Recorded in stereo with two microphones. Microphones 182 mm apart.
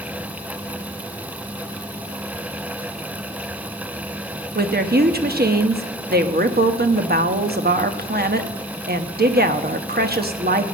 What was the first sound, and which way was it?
A woman speaking, 60° right (ahead or behind).